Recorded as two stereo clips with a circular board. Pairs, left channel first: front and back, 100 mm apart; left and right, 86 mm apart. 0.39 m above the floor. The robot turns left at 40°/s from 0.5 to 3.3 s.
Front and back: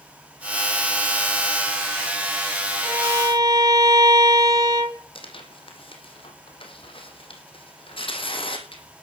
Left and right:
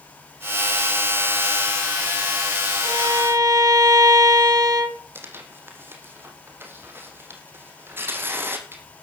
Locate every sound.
2.8 s a violin: 115° right, 3 m; by 5.0 s 130° right, 3 m
5.2 s tearing paper: 25° right, 3 m